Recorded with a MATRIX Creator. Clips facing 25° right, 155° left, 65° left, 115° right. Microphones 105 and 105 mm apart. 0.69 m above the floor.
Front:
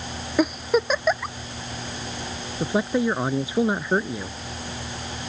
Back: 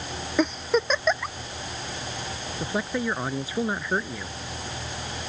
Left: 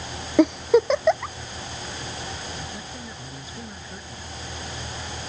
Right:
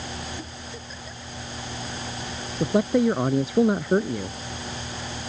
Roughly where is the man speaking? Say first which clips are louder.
Front 6 dB, right 17 dB; right.